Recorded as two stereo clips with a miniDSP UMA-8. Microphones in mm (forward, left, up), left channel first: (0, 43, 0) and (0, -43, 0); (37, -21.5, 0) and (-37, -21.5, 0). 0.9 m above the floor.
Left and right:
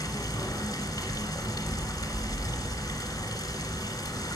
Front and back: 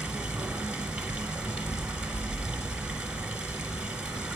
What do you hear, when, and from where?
0.0 s running water: 110° left, 1.2 m